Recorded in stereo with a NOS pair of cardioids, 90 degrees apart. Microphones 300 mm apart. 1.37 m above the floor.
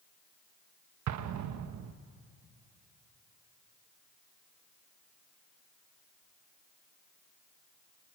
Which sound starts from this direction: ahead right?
An explosion, at 1.1 s.